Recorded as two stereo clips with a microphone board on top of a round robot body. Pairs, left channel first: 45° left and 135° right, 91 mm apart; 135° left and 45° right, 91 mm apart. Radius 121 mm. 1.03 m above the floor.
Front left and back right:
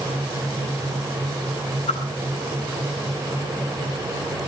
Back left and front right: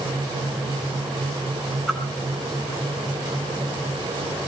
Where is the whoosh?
50° left, 9 m.